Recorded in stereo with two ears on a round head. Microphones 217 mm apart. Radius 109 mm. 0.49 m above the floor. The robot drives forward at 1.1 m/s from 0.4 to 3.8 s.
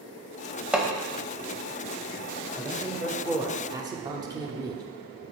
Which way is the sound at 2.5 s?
5° right (ahead or behind).